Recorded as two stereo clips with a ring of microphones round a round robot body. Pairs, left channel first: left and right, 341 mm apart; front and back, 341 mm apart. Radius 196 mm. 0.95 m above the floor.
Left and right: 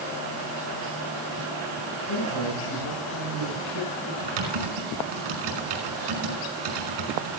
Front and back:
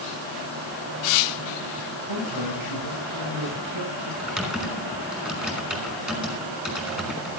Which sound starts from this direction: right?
Typing on a keyboard, at 4.2 s.